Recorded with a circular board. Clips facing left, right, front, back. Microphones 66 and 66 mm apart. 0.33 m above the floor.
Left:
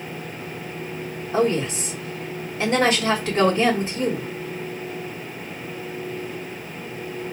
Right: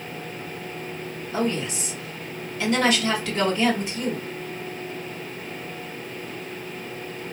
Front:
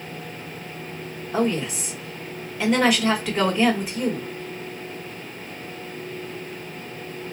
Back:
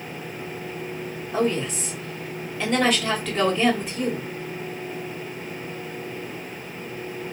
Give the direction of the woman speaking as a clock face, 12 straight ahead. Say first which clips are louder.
Left 5 dB, even; 9 o'clock.